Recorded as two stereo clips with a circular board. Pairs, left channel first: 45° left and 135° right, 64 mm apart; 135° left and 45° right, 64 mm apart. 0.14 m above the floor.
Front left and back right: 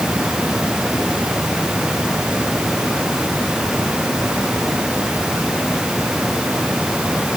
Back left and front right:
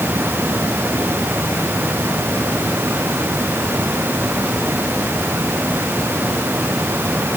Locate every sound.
Only background noise.